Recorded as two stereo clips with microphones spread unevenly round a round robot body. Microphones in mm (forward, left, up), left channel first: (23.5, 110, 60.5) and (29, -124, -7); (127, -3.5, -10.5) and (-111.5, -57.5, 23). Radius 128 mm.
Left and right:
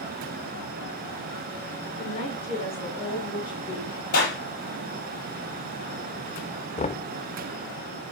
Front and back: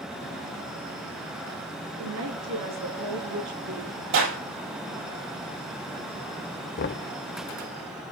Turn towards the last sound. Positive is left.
turn(degrees=20)